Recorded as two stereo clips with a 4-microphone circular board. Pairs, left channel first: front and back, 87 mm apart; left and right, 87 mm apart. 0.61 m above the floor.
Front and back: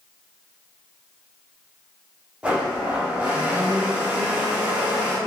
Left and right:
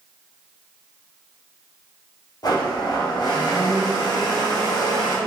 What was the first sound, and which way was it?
A blender, 110° left.